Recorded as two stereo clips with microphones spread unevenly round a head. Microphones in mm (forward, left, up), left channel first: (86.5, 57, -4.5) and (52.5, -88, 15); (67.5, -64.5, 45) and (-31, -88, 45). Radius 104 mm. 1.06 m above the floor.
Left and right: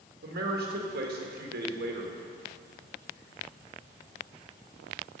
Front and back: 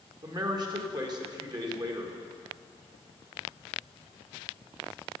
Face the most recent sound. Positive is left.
turn(degrees=-120)